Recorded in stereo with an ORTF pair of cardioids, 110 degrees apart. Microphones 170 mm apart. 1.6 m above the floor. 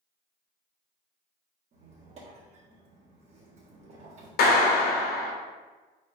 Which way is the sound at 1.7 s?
45° right.